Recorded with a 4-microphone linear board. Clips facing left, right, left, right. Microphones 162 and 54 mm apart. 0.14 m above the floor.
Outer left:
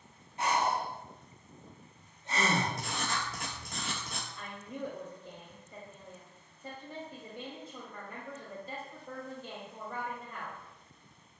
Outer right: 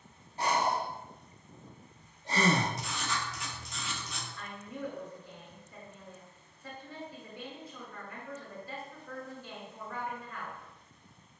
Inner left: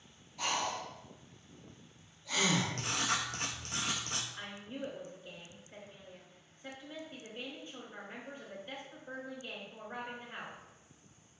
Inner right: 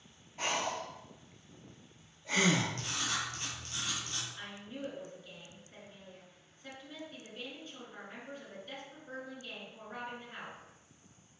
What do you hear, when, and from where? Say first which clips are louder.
0.4 s breathing: even, inner right 1 dB; 35° right (ahead or behind), 0.5 m
2.8 s writing: outer left 1 dB, inner left 2 dB; 55° left (ahead or behind), 0.6 m
4.4 s a woman speaking: even, inner left 1 dB; 20° left (ahead or behind), 1.5 m